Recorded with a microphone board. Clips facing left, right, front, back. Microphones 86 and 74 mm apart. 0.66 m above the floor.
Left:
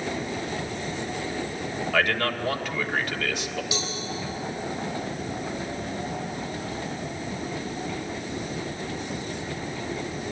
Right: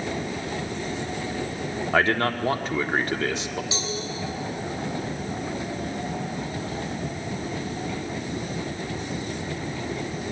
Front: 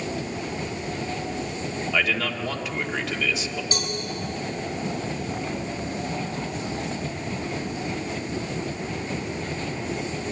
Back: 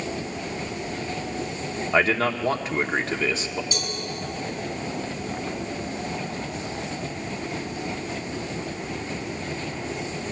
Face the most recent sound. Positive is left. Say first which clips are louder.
# right 1 dB, front 1 dB
turn(degrees=-30)